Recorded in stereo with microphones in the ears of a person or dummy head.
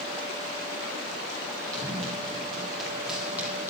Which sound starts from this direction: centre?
Running footsteps, at 1.7 s.